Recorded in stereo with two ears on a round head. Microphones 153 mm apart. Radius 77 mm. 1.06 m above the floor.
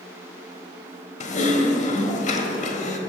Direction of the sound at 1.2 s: 45° left (ahead or behind).